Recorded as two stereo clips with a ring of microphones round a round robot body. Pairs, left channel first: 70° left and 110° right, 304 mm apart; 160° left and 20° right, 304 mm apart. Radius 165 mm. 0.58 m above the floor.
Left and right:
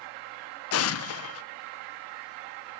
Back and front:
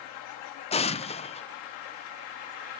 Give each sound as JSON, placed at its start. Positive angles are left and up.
{"t": 0.7, "sound": "an explosion", "azimuth_deg": 90, "distance_m": 0.6}